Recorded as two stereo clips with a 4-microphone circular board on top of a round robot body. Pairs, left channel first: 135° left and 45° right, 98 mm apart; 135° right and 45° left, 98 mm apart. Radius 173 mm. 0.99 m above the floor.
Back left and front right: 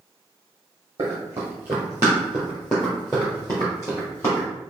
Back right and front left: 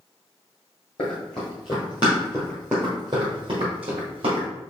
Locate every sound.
1.0 s running footsteps: 105° right, 1.5 m; by 4.5 s 75° left, 1.7 m